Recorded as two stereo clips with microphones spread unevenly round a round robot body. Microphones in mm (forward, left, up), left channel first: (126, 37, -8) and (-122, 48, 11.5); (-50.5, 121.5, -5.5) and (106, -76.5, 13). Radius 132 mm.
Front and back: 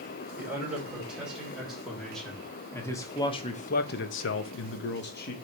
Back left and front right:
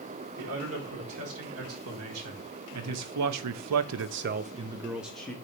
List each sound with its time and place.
0.4 s a man speaking: 100° right, 2.5 m; by 5.3 s 45° left, 0.9 m